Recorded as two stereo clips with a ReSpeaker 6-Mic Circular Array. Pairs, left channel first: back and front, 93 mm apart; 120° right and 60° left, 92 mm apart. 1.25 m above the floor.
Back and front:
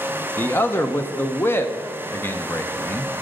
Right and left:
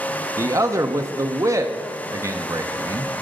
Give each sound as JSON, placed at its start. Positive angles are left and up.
{"t": 0.4, "sound": "a man speaking", "azimuth_deg": 115, "distance_m": 0.6}